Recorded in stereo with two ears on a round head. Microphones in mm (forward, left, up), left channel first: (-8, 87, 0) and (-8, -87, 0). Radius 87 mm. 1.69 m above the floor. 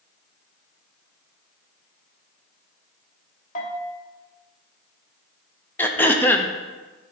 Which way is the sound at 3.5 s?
40° left (ahead or behind).